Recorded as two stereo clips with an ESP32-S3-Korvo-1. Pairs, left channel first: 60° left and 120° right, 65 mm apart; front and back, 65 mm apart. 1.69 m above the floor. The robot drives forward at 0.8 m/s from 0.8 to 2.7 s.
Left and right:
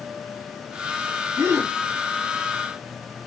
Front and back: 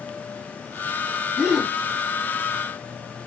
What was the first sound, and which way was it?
A gasp, 95° right.